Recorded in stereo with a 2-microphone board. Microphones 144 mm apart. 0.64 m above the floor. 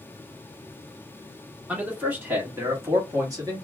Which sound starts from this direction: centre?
A man speaking, at 1.7 s.